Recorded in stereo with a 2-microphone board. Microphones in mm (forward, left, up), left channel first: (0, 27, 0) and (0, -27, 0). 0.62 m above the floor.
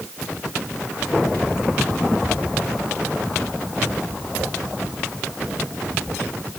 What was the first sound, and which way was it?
Only background noise.